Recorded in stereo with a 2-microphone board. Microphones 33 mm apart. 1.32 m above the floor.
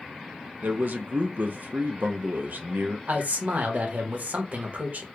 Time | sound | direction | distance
0.6 | a man speaking | 65° right (ahead or behind) | 0.7 m
3.1 | a man speaking | 60° right (ahead or behind) | 1.2 m